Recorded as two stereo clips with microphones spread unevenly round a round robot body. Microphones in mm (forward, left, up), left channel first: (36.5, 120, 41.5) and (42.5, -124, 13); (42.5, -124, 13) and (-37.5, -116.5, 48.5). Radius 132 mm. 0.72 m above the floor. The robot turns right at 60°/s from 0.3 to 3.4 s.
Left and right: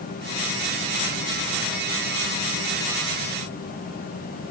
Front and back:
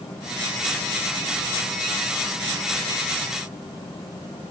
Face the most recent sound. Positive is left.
No sound to turn to.